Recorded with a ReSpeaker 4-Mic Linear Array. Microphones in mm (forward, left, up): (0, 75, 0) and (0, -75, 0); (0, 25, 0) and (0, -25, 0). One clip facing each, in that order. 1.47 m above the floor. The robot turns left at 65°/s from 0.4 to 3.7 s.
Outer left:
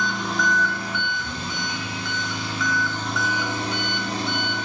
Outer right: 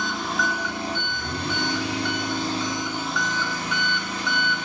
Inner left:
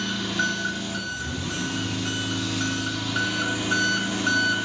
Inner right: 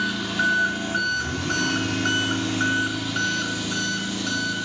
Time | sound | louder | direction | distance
0.0 | an engine running | outer left 1 dB, inner right 3 dB | straight ahead | 2.5 m